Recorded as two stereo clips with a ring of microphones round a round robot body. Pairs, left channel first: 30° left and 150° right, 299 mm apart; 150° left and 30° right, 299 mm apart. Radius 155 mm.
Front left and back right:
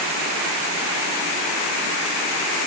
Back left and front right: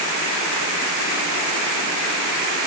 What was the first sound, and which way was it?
Only background noise.